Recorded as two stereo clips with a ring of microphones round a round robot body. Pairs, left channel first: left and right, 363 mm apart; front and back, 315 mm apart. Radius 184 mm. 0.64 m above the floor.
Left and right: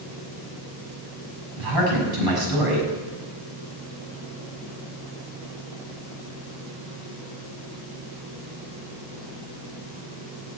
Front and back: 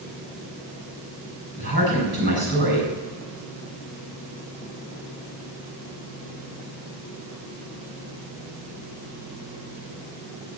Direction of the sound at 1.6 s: 120° right.